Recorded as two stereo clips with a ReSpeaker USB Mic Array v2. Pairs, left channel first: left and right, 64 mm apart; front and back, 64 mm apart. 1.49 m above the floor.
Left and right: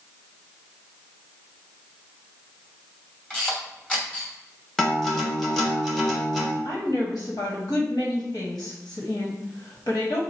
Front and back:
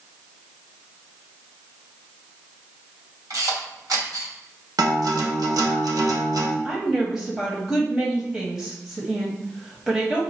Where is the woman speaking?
105° left, 1.6 m.